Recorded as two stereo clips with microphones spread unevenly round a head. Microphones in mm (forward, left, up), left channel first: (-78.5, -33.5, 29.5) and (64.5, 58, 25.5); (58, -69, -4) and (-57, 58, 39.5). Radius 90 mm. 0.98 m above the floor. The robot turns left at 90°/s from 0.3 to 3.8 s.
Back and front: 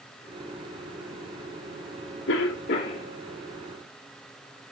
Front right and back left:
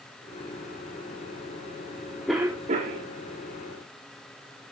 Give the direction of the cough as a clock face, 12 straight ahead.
4 o'clock.